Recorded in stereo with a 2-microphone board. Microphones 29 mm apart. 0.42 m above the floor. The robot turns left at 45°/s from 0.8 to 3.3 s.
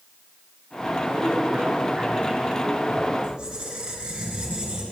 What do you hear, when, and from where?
1.1 s a man speaking: 110° right, 2.5 m; by 3.1 s 160° left, 2.5 m
3.2 s a squeak: 30° right (ahead or behind), 2.0 m; by 4.8 s 25° right (ahead or behind), 2.0 m